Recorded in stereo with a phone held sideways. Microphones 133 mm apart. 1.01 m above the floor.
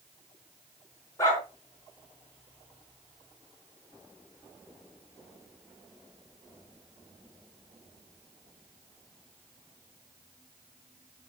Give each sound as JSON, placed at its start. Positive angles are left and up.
{"t": 1.2, "sound": "a dog barking", "side_deg": 25, "distance_m": 4.5}